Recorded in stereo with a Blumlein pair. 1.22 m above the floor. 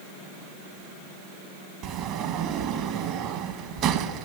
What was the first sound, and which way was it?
A sliding door, 40° right.